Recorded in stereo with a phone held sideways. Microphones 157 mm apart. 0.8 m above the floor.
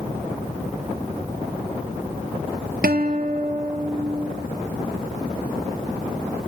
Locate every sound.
2.8 s a guitar: 75° right (ahead or behind), 0.9 m